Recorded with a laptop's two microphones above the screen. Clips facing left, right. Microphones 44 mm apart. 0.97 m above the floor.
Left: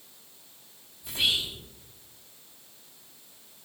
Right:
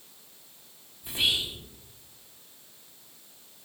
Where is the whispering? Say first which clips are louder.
Even; 25° right (ahead or behind), 0.9 m.